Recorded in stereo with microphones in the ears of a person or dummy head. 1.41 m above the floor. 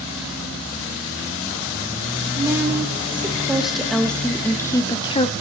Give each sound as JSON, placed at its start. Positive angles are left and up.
{"t": 2.4, "sound": "a woman speaking", "side_deg": -15, "distance_m": 2.5}